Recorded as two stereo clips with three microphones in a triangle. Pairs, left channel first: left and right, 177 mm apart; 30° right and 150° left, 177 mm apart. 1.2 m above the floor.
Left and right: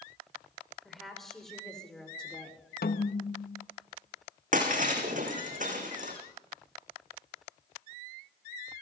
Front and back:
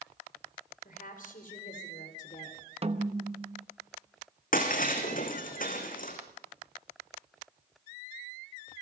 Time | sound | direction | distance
0.8 | a woman speaking | straight ahead | 5.5 m
2.8 | a snare drum | 100° left | 0.9 m
4.5 | breaking glass | 55° right | 3.5 m